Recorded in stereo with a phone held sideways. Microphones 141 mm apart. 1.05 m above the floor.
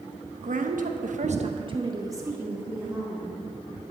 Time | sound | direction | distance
0.4 | a woman speaking | 65° right (ahead or behind) | 1.1 m